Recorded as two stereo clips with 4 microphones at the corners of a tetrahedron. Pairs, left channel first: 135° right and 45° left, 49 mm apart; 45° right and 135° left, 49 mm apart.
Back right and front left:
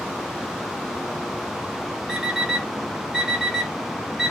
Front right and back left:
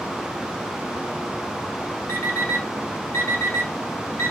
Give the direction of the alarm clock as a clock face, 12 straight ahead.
1 o'clock.